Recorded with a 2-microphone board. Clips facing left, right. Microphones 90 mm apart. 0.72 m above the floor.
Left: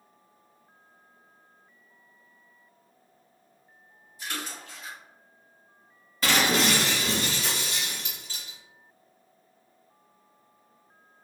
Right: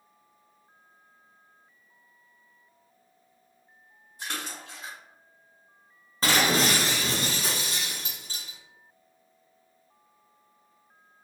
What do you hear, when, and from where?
4.2 s a splash: 50° right (ahead or behind), 1.9 m
6.2 s breaking glass: 35° right (ahead or behind), 1.1 m